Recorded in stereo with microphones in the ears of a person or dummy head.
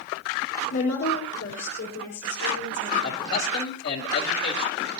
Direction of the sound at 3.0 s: 70° left (ahead or behind).